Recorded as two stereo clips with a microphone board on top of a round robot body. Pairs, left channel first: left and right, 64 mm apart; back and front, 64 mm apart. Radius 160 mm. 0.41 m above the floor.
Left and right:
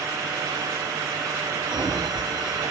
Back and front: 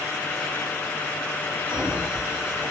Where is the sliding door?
60° right, 1.9 m.